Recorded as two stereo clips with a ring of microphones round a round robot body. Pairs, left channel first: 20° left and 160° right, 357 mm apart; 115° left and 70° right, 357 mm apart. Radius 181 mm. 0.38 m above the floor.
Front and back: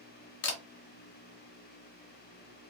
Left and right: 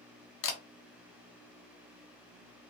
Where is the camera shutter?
70° left, 1.0 m.